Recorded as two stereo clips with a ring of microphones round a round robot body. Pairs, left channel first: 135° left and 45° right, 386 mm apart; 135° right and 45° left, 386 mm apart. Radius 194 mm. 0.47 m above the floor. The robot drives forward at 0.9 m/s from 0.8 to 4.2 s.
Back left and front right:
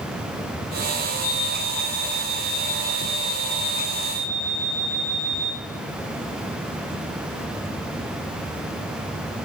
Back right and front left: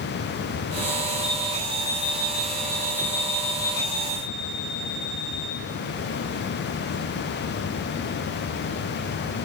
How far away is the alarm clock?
About 1.5 m.